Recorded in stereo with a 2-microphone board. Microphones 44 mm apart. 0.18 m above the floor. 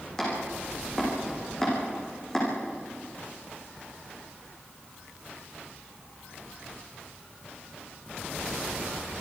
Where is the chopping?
15° left (ahead or behind), 8 m.